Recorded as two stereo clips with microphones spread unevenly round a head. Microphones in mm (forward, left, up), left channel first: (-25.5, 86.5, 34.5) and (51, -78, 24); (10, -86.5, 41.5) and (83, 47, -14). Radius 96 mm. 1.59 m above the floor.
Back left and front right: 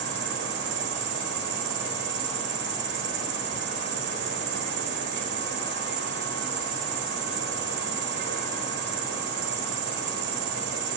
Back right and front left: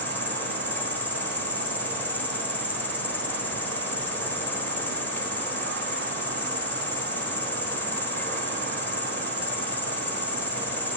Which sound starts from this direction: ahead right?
An insect, at 0.0 s.